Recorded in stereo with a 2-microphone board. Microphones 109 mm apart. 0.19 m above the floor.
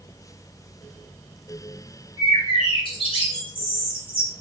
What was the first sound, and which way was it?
A bird, 55° left (ahead or behind).